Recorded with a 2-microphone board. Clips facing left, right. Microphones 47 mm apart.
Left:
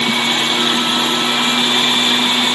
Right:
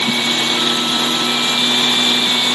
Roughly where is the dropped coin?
No dropped coin in this recording.